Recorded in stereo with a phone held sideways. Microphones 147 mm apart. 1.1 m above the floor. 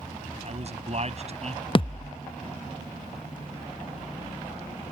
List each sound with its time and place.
0.4 s a man speaking: 50° right (ahead or behind)
1.8 s a thud: 35° left (ahead or behind)